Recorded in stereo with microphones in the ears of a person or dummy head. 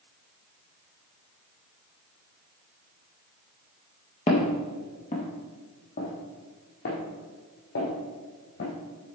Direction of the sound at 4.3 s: 30° left (ahead or behind).